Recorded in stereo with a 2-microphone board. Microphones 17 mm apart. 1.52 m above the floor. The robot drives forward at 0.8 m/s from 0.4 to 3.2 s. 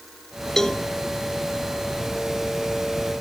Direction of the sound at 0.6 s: 30° left (ahead or behind).